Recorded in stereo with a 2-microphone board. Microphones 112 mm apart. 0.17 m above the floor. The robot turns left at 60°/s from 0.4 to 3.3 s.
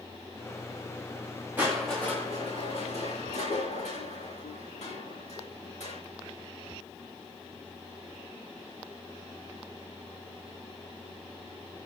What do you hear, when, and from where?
1.6 s crushing: 165° right, 8.5 m; by 6.0 s 90° left, 8.5 m